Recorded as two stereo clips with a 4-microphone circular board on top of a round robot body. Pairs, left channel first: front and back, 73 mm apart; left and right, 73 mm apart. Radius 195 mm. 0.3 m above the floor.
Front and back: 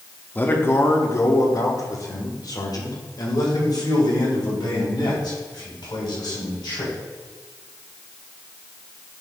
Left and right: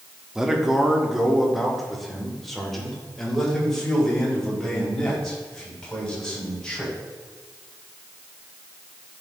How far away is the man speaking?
About 1.3 m.